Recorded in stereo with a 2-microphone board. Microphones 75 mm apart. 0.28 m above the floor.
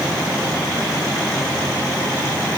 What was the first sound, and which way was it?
Only background noise.